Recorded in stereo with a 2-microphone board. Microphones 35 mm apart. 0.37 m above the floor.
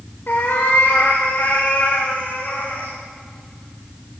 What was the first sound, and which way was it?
A cat meowing, 65° left (ahead or behind).